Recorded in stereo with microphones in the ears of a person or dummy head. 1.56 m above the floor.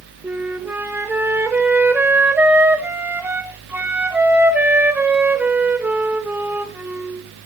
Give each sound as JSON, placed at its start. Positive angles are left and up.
{"t": 0.2, "sound": "a flute", "side_deg": -10, "distance_m": 1.0}